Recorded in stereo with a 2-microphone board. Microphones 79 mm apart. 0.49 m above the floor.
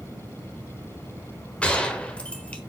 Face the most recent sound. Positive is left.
turn(degrees=15)  # may be behind; listen again after turning